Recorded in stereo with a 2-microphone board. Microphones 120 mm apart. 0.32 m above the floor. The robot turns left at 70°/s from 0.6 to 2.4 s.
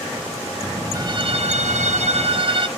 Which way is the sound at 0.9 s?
30° right.